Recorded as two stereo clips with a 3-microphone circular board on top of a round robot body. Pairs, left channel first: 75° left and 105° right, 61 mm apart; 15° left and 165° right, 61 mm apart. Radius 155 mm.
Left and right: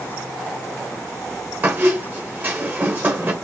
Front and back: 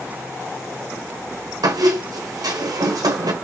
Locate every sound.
1.6 s a squeak: 165° right, 1.0 m